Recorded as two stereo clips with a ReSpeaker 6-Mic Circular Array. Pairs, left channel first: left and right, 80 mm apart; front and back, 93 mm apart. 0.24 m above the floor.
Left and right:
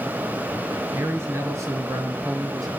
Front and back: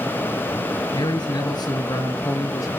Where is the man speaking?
35° right, 3.5 m; by 2.7 s 50° right, 3.5 m.